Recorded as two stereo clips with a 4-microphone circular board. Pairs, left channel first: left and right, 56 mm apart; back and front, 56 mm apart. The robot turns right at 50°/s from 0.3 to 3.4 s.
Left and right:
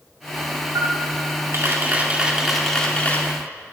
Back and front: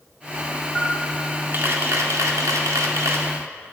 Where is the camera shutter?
90° right, 1.7 m; by 3.3 s 35° left, 1.7 m.